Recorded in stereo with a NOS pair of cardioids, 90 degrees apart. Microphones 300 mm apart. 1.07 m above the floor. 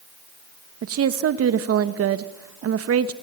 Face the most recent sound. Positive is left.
turn(degrees=-50)